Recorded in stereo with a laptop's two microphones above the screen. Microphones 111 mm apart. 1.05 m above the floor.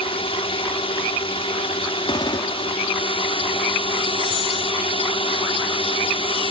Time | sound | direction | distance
0.0 | a drone | 55° left (ahead or behind) | ?
2.1 | a gunshot | 50° left (ahead or behind) | ?